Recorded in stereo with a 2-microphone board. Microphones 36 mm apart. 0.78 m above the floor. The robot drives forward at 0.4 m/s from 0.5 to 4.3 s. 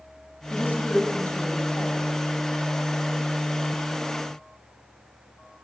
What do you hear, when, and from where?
0.5 s a woman speaking: 65° left (ahead or behind), 4 m; by 2.1 s 70° left (ahead or behind), 4 m